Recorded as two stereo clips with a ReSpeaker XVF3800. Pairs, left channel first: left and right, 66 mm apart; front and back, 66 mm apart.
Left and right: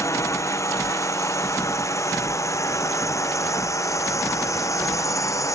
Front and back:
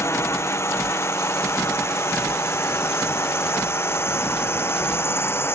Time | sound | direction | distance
0.0 | a drone | 50° left | ?